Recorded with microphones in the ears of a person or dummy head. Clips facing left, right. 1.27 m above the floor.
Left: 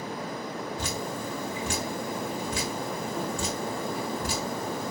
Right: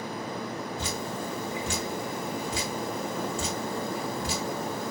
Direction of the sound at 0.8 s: 50° left (ahead or behind).